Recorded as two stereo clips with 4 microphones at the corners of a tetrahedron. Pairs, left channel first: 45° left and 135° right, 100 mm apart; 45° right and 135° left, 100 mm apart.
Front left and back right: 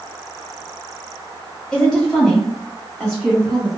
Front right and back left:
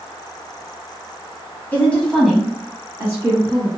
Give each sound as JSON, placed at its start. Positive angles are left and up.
{"t": 1.7, "sound": "a woman speaking", "azimuth_deg": -20, "distance_m": 1.4}